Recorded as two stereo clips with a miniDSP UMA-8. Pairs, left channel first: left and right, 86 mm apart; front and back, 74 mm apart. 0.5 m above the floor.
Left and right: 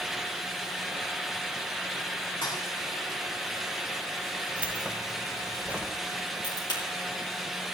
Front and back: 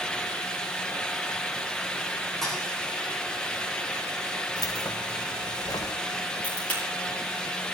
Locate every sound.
2.4 s a thud: 85° left, 6.5 m
4.6 s keys jangling: 15° right, 1.6 m
6.4 s a crack: 70° left, 8.5 m